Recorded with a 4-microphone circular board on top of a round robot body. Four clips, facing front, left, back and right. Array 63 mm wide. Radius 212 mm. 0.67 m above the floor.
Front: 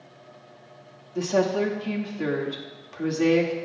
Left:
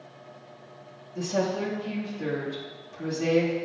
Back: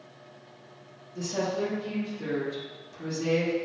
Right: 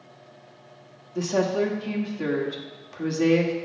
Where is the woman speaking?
35° right, 1.7 m.